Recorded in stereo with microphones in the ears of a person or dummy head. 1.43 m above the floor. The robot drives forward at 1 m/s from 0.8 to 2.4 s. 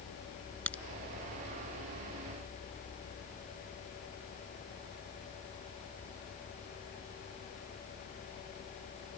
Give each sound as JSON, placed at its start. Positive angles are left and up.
{"t": 0.7, "sound": "a crack", "side_deg": 10}